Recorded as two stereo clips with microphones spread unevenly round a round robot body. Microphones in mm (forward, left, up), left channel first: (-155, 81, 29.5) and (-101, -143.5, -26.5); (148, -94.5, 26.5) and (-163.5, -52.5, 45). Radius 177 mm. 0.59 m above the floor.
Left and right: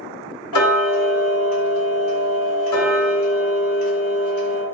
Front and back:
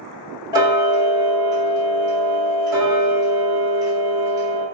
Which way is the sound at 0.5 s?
95° left.